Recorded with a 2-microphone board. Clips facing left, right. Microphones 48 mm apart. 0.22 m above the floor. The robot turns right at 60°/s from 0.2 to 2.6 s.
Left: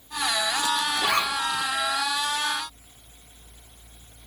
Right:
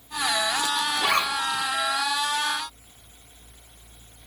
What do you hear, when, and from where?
1.0 s a zipper: 30° right (ahead or behind), 4 m; by 1.6 s 70° right (ahead or behind), 4 m